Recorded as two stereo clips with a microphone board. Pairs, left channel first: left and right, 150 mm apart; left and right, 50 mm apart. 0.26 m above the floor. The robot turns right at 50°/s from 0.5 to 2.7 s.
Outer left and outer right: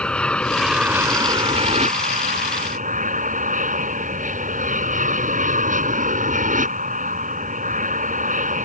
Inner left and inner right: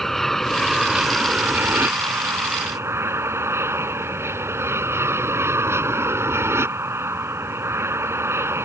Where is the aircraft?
175° left; by 8.7 s 75° right.